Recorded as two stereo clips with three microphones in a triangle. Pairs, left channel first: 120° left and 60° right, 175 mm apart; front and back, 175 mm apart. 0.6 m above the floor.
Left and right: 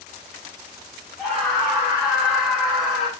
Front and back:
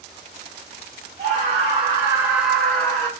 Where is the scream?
145° right, 1.6 m; by 3.1 s 25° left, 1.1 m.